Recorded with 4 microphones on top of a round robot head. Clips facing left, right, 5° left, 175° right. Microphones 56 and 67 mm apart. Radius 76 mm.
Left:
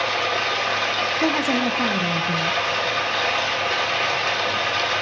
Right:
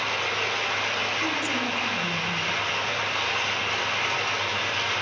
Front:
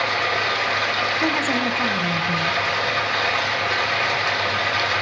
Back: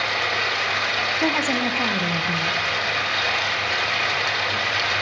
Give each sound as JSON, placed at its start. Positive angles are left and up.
{"t": 0.0, "sound": "running water", "azimuth_deg": 60, "distance_m": 3.0}
{"t": 1.2, "sound": "a woman speaking", "azimuth_deg": 105, "distance_m": 0.8}